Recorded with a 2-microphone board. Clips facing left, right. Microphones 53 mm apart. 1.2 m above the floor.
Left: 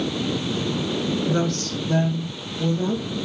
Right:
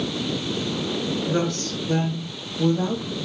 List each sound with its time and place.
1.3 s a woman speaking: 15° right (ahead or behind), 0.9 m; by 3.1 s 70° right (ahead or behind), 1.2 m